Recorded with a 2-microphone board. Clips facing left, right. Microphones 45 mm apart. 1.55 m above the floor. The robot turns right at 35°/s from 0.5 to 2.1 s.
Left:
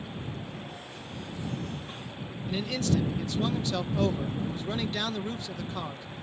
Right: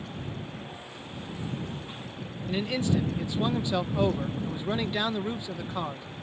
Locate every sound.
2.5 s a man speaking: 15° right (ahead or behind)